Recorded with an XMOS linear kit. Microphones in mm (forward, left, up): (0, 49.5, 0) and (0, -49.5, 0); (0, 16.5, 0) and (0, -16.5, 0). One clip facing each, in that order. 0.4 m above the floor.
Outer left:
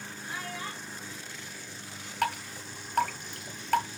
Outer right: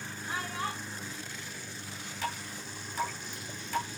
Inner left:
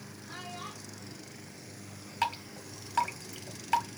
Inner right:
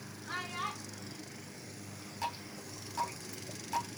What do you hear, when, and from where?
0.3 s a child speaking: 70° right (ahead or behind), 2.5 m
2.2 s dripping: 65° left (ahead or behind), 2 m